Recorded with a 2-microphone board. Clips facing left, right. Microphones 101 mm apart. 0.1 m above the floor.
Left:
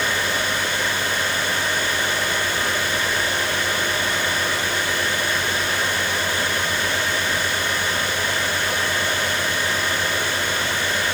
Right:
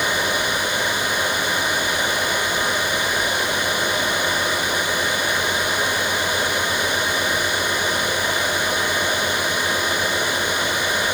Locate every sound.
Only background noise.